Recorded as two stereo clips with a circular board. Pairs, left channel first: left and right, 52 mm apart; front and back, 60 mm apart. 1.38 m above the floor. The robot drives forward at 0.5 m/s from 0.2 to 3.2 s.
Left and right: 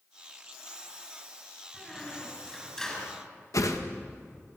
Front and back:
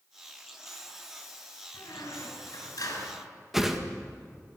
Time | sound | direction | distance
1.7 | a squeak | 10° left | 6 m
3.5 | a whoosh | 95° left | 1.7 m